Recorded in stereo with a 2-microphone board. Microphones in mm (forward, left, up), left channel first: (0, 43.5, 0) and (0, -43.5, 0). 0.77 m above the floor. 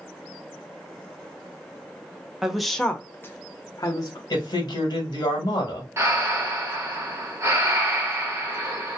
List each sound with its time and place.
2.4 s a woman speaking: 5° right (ahead or behind), 0.6 m; by 4.2 s 45° left (ahead or behind), 0.7 m
4.3 s a man speaking: 50° left (ahead or behind), 1.1 m
6.0 s breathing: 35° right (ahead or behind), 1.1 m